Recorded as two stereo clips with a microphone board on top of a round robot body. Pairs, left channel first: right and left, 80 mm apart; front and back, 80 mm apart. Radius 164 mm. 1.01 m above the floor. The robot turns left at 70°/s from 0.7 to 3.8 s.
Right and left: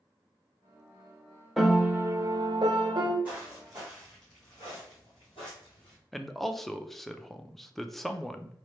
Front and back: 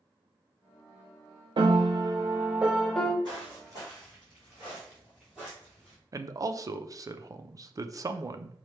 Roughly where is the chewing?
No chewing in this recording.